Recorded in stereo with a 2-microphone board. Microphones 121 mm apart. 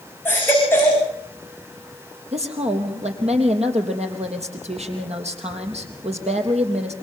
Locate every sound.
0.2 s a baby crying: 20° left (ahead or behind), 8 m
2.3 s a woman speaking: 60° right (ahead or behind), 3.5 m